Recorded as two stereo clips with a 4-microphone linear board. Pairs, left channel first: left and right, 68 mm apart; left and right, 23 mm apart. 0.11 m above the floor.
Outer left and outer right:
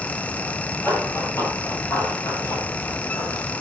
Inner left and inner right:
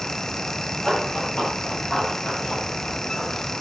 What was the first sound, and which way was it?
Running footsteps, 40° left (ahead or behind).